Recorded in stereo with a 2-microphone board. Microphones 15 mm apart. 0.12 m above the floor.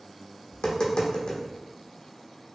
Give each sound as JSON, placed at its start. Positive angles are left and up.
{"t": 0.5, "sound": "tapping", "side_deg": 70, "distance_m": 0.9}